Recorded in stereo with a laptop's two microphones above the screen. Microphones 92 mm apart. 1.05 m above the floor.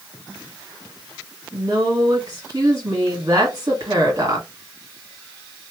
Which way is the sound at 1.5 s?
40° right (ahead or behind).